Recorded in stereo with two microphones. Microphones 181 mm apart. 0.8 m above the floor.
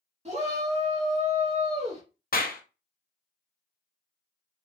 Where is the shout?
40° right (ahead or behind), 1.9 m.